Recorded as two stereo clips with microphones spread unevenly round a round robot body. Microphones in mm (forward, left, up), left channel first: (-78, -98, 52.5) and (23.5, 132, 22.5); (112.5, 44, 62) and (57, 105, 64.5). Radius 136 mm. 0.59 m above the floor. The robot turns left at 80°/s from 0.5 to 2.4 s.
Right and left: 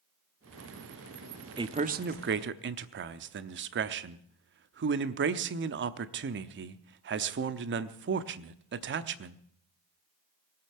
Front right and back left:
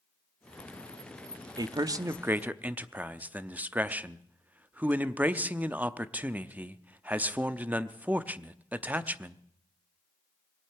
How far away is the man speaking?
About 0.8 m.